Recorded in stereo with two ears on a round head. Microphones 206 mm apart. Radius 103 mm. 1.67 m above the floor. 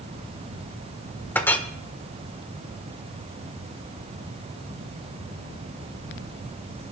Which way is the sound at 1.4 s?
10° left (ahead or behind).